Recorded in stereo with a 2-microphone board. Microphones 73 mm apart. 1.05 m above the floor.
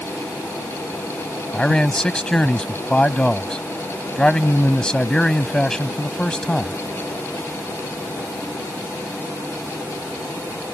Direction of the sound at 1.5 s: 10° left (ahead or behind).